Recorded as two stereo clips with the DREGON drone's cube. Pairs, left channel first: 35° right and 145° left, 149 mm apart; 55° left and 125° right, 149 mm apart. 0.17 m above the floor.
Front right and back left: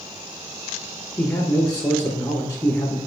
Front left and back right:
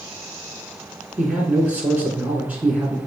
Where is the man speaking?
60° right, 1.1 m.